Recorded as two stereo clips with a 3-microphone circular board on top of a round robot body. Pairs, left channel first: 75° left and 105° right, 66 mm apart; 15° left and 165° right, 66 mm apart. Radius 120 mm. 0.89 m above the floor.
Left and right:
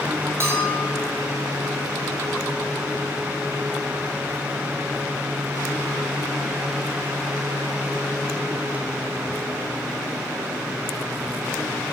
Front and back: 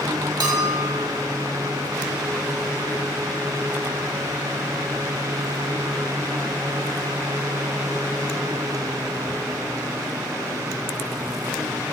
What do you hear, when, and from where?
0.4 s a bell: 155° right, 1.9 m